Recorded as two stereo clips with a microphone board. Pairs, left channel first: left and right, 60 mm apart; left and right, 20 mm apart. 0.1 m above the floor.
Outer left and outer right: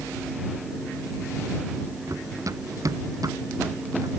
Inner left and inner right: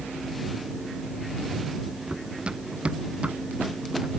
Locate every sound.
2.1 s running footsteps: 65° right (ahead or behind); by 4.1 s 75° right (ahead or behind)